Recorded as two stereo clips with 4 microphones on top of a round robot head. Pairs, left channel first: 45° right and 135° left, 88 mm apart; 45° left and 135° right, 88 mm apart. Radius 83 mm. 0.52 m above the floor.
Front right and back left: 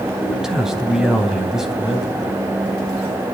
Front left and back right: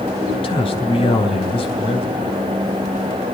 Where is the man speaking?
50° left, 3.5 m.